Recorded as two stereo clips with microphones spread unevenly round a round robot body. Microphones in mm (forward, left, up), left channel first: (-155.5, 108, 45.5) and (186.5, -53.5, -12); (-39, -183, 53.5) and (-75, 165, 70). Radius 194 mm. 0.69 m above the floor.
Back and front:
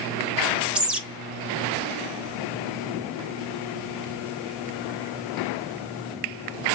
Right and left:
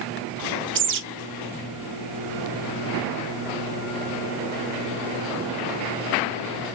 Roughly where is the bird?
Ahead left.